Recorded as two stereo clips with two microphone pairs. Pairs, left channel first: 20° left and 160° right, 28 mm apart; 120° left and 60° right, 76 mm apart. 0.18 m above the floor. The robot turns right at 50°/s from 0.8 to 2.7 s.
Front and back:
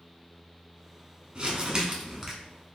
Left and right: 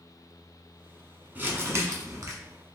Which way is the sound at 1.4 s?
120° right.